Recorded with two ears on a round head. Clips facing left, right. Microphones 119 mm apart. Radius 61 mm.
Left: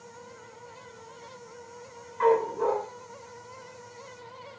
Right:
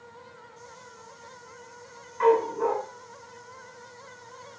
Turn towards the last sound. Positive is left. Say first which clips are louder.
# right 1 dB
turn(degrees=-5)  # may be behind; listen again after turning